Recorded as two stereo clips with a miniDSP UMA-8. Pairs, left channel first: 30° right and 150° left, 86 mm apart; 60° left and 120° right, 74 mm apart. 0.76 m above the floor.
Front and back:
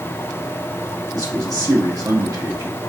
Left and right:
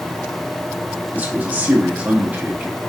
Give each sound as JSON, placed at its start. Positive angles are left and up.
{"t": 1.1, "sound": "a man speaking", "azimuth_deg": 180, "distance_m": 1.4}